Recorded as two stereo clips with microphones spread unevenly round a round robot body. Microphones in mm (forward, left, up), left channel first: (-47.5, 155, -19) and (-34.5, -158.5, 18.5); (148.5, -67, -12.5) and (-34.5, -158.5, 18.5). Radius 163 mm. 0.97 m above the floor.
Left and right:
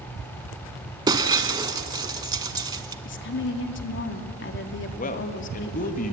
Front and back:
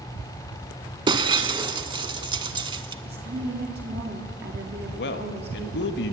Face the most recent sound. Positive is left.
turn(degrees=35)